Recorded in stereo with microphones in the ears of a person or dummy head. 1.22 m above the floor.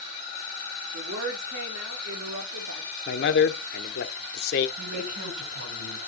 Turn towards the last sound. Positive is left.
turn(degrees=-80)